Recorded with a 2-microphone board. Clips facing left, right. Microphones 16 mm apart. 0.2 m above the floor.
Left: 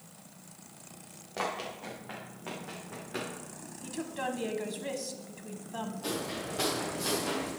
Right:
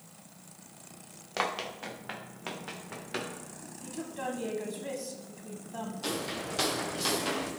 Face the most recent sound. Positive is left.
turn(degrees=-70)  # may be behind; listen again after turning